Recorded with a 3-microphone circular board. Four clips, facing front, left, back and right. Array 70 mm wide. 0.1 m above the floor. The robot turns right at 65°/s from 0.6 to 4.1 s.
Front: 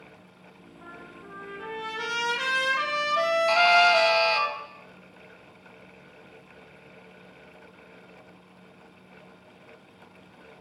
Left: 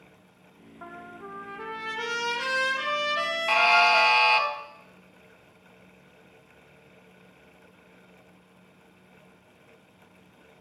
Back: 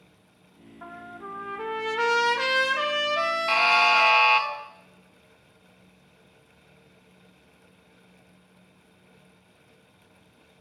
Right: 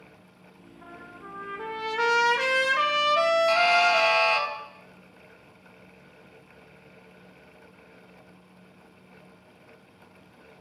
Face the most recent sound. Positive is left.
turn(degrees=175)